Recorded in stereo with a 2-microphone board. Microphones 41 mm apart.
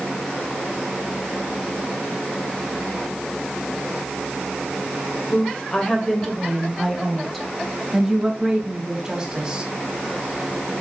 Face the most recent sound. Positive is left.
turn(degrees=-15)  # may be behind; listen again after turning